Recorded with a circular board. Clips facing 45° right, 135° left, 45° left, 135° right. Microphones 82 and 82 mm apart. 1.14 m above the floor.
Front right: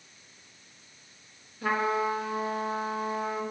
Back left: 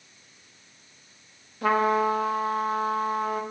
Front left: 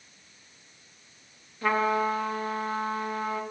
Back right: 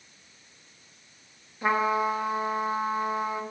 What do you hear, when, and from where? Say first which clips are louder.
1.6 s a trumpet: back left 5 dB, even; 155° left, 1.4 m